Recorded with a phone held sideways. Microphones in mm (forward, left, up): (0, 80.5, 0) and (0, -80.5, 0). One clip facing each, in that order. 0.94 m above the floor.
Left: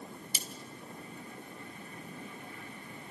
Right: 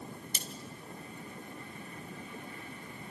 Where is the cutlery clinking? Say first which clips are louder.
Even; 5° left (ahead or behind), 1.4 m.